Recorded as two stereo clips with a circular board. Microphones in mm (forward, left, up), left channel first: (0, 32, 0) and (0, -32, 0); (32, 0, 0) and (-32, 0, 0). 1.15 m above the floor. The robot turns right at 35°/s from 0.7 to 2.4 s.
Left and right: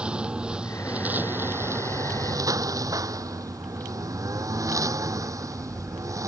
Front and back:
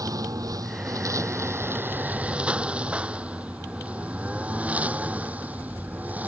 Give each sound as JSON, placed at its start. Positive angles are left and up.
{"t": 0.0, "sound": "a lawn mower", "azimuth_deg": -160}